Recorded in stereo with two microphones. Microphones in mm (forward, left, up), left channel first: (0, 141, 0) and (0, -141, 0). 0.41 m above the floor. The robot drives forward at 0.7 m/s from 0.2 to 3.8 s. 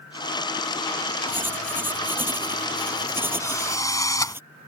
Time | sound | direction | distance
1.3 | writing | 5° right (ahead or behind) | ?
3.4 | a drill | 10° left (ahead or behind) | ?